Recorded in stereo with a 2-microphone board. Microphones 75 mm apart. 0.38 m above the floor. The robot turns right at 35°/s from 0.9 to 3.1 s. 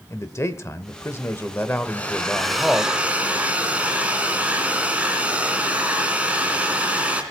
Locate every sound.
0.1 s a man speaking: 110° left, 1.0 m; by 2.9 s straight behind, 1.0 m
1.9 s a hair dryer: 155° left, 2 m; by 7.2 s 160° right, 2 m